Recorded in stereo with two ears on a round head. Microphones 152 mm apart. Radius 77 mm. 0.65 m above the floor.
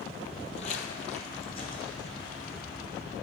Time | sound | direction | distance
0.2 | footsteps | 25° left (ahead or behind) | 1.0 m